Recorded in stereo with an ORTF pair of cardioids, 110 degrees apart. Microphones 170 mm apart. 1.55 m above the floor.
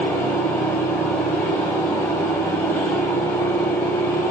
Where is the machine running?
15° left, 0.9 m.